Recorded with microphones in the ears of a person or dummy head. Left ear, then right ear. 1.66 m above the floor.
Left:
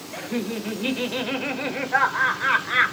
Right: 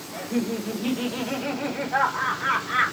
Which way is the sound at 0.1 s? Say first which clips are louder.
Right 1 dB; 20° left (ahead or behind).